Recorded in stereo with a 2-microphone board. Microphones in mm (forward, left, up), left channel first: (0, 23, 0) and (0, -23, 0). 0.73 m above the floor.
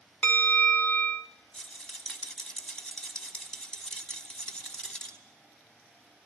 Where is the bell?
40° left (ahead or behind), 0.7 m.